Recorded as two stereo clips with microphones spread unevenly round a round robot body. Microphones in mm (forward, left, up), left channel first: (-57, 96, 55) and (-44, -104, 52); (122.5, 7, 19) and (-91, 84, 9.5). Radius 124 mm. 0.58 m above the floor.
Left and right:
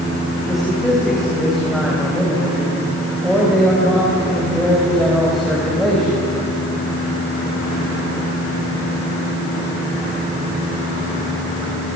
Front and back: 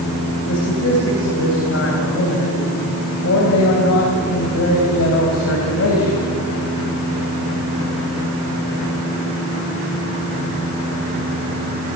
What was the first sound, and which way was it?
A man speaking, 5° left.